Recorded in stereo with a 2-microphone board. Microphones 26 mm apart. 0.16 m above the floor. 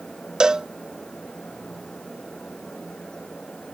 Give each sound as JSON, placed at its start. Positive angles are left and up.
{"t": 0.4, "sound": "a cowbell", "side_deg": -25}